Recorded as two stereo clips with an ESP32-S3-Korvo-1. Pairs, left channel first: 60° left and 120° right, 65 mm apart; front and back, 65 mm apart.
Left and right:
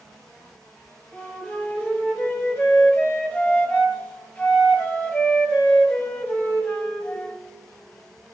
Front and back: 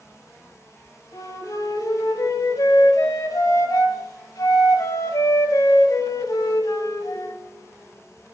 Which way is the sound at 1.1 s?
5° right.